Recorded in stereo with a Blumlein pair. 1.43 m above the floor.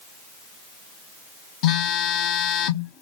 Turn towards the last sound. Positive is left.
turn(degrees=40)